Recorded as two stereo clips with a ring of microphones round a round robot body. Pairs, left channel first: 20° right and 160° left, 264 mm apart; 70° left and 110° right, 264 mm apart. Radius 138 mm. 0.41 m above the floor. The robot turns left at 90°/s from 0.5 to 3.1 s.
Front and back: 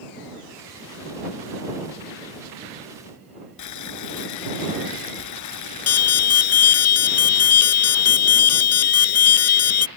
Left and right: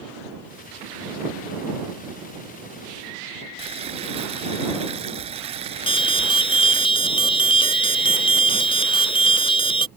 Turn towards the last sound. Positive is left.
turn(degrees=0)